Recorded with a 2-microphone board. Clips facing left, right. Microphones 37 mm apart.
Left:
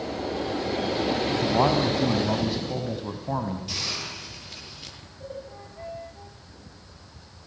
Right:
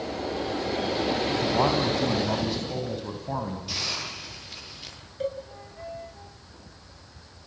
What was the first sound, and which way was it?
A man speaking, 5° left (ahead or behind).